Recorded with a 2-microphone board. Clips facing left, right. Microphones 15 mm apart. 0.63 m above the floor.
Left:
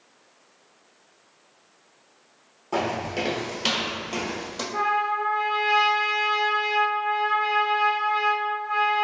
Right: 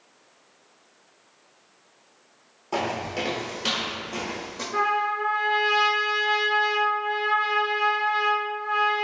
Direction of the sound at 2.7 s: 10° right (ahead or behind).